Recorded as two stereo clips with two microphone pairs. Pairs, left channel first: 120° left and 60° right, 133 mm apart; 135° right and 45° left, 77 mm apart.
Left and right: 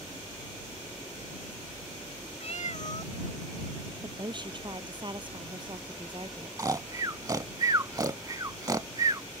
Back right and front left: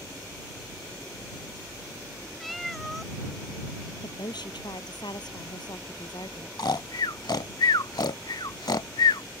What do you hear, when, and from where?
2.4 s a cat meowing: 140° left
4.0 s a woman speaking: 115° right
6.6 s snoring: 125° right